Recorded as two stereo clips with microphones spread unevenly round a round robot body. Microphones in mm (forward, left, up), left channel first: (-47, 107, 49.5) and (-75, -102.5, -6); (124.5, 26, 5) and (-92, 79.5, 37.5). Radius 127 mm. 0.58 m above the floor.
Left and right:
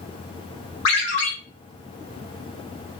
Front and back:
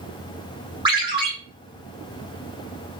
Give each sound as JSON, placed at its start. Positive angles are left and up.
{"t": 0.8, "sound": "a ringtone", "azimuth_deg": 95, "distance_m": 1.6}